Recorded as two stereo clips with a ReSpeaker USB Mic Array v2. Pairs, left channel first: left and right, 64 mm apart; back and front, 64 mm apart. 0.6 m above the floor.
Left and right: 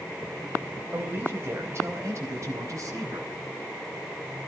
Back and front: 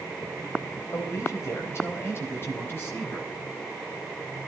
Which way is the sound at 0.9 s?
145° right.